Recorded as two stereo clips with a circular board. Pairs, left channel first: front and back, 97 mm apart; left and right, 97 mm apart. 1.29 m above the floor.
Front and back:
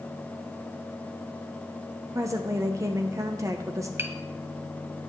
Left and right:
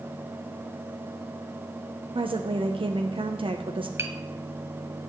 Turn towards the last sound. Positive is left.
turn(degrees=-130)